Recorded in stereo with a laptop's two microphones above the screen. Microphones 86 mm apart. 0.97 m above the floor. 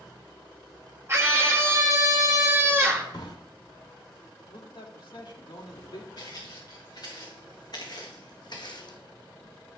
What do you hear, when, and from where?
1.1 s a scream: 30° right (ahead or behind), 1.5 m
3.1 s a drawer: 60° left (ahead or behind), 1.6 m
4.5 s a man speaking: 75° left (ahead or behind), 2 m
6.2 s footsteps: 45° left (ahead or behind), 4.5 m; by 9.0 s 55° left (ahead or behind), 1.9 m